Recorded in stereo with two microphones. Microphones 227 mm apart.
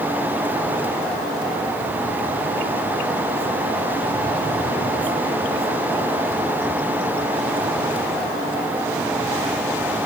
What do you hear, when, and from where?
Only background noise.